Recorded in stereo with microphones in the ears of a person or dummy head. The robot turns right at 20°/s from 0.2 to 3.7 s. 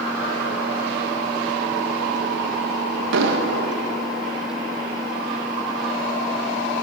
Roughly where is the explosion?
Right.